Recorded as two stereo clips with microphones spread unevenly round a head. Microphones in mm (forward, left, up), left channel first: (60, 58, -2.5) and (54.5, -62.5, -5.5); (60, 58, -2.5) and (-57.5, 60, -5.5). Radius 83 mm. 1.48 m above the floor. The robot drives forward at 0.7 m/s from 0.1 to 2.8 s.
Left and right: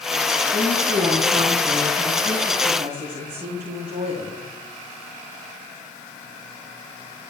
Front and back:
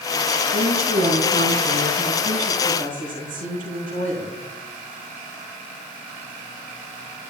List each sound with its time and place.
0.5 s a woman speaking: 165° right, 4 m; by 4.4 s 170° right, 5.5 m